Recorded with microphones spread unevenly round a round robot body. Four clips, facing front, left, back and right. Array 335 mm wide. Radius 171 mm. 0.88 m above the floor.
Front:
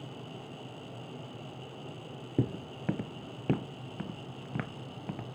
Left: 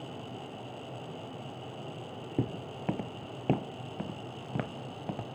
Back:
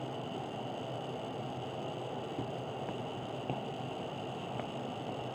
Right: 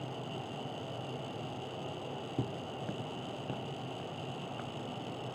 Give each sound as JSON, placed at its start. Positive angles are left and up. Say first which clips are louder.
{"t": 2.4, "sound": "footsteps", "louder": "left 6 dB, front 4 dB", "azimuth_deg": 20}